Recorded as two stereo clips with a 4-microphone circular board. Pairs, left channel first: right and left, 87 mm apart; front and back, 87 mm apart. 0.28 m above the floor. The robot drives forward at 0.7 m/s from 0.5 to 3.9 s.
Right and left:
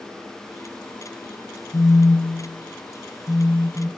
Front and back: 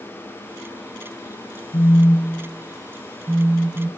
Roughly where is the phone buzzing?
Ahead right.